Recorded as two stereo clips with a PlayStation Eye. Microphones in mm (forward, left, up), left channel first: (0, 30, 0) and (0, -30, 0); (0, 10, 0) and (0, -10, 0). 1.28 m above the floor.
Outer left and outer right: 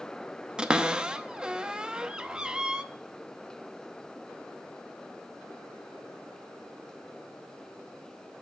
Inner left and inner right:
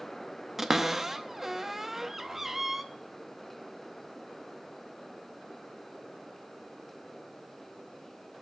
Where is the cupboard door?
15° right (ahead or behind), 0.7 m.